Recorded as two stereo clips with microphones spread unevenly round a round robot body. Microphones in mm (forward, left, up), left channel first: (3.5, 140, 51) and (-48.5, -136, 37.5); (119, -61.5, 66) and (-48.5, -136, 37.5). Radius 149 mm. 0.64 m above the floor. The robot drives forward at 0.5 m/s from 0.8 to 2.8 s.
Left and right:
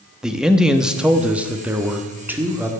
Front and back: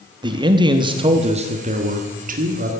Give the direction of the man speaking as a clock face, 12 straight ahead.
6 o'clock.